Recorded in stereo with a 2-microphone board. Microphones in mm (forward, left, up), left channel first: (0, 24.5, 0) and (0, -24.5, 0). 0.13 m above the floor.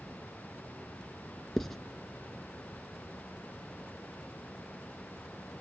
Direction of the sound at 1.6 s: 5° left (ahead or behind).